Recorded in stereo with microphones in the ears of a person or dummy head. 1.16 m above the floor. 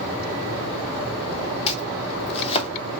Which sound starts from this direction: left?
Chopping, at 1.7 s.